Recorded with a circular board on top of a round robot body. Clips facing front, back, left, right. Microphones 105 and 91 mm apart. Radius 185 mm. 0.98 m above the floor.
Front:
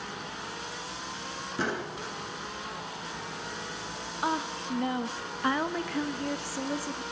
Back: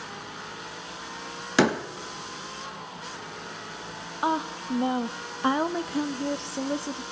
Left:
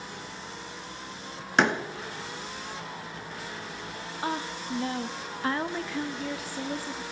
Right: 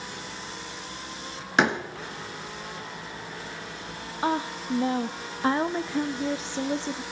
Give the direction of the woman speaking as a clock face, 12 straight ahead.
4 o'clock.